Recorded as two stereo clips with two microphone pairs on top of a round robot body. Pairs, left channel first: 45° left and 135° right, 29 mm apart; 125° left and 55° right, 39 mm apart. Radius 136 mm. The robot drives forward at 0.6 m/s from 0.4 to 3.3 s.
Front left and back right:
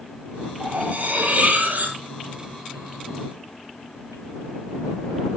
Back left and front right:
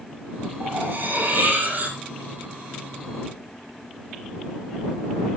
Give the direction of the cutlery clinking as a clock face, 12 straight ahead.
3 o'clock.